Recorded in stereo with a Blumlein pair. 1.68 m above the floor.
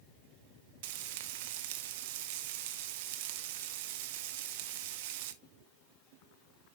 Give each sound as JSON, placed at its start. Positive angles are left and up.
{"t": 0.8, "sound": "frying", "azimuth_deg": -50, "distance_m": 0.7}